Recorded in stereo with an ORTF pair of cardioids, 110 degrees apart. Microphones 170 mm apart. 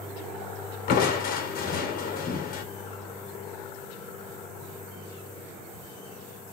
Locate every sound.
0.9 s crushing: 60° left, 1.2 m